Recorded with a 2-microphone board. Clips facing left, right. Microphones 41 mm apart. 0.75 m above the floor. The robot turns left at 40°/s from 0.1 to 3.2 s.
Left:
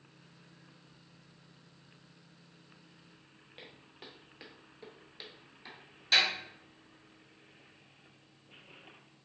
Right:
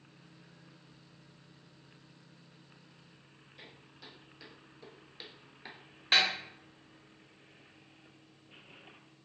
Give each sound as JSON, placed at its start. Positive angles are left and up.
{"t": 3.6, "sound": "footsteps", "side_deg": 50, "distance_m": 1.1}
{"t": 6.1, "sound": "a snare drum", "side_deg": -35, "distance_m": 1.4}